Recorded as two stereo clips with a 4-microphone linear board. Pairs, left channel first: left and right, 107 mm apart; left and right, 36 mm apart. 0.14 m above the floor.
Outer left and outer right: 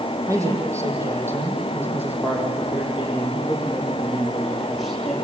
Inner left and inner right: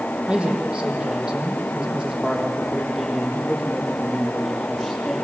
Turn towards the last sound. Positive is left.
turn(degrees=5)  # may be behind; listen again after turning